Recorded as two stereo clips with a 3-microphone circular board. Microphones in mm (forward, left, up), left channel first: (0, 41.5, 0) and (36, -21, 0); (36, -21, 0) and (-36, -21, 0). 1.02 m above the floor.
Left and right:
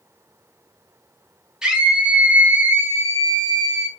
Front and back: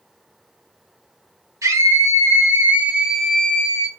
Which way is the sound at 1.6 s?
140° right.